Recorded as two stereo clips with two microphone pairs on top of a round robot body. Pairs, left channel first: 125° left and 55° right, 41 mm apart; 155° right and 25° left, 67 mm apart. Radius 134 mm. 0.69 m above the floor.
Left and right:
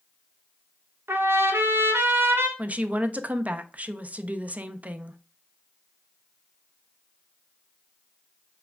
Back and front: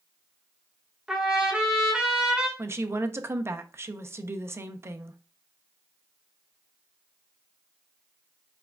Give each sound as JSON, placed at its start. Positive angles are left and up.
{"t": 1.1, "sound": "a trumpet", "azimuth_deg": -55, "distance_m": 1.1}
{"t": 2.6, "sound": "a woman speaking", "azimuth_deg": -20, "distance_m": 0.7}